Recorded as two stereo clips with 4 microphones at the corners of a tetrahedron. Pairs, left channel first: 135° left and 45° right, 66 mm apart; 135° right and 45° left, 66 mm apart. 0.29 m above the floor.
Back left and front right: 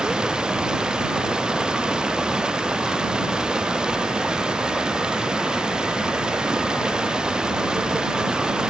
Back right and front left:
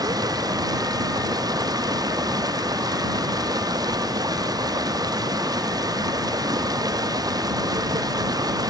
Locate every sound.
0.0 s running water: 35° left